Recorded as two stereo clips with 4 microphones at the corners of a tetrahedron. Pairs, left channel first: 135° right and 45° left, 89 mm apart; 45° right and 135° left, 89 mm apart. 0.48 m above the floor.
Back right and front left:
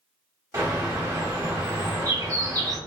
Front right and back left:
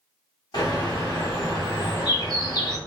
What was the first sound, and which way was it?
A bird, 5° right.